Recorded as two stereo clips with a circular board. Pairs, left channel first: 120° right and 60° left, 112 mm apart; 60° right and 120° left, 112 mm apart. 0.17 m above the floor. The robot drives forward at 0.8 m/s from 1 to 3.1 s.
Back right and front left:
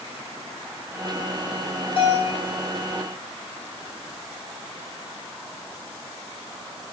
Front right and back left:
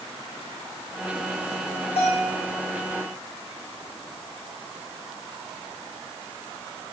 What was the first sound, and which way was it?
A bell, 85° right.